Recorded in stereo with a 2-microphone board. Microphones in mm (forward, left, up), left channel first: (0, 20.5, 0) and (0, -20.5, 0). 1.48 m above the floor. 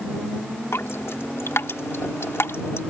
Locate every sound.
0.7 s dripping: 85° left